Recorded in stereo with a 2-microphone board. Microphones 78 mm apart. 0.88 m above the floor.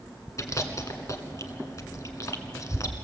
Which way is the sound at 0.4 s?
45° left (ahead or behind).